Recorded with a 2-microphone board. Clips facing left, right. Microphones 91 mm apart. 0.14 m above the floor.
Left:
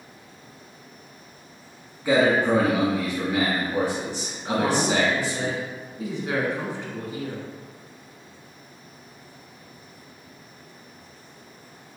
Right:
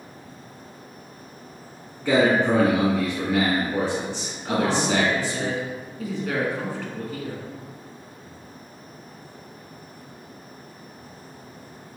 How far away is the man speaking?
About 1.5 m.